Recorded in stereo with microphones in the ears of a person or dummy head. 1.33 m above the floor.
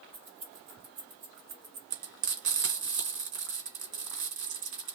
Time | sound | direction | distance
0.1 | keys jangling | 45° right (ahead or behind) | 1.5 m
1.9 | frying | 45° right (ahead or behind) | 1.6 m